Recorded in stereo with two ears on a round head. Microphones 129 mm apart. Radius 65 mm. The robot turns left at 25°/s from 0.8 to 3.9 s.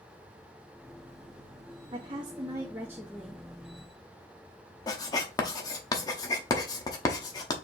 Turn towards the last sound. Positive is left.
turn(degrees=25)  # may be behind; listen again after turning